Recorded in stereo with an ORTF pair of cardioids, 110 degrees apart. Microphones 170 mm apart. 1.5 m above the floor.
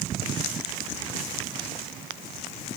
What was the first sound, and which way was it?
Only background noise.